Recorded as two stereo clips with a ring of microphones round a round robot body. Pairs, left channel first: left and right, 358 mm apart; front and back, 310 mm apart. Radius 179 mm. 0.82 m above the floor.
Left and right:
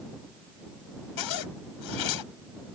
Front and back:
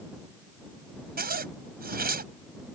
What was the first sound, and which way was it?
A zipper, 120° left.